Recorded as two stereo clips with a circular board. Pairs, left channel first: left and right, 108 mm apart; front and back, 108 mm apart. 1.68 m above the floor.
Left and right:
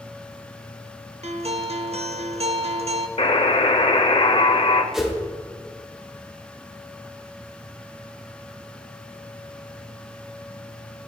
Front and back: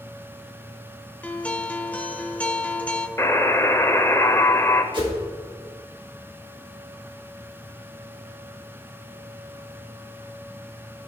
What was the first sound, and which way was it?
A guitar, 80° right.